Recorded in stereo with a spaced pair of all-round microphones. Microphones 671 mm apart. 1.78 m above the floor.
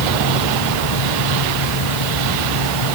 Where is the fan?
50° left (ahead or behind).